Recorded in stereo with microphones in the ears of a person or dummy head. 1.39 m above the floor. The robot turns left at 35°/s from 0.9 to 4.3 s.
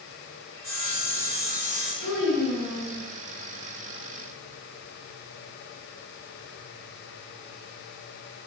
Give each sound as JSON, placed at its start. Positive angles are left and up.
{"t": 0.5, "sound": "sawing", "azimuth_deg": 165, "distance_m": 1.5}
{"t": 2.0, "sound": "a child speaking", "azimuth_deg": 90, "distance_m": 0.9}